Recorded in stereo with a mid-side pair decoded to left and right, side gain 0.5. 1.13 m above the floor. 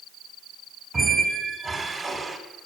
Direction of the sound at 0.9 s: 25° right.